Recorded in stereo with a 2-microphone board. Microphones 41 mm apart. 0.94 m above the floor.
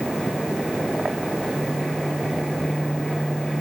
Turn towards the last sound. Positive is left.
No sound to turn to.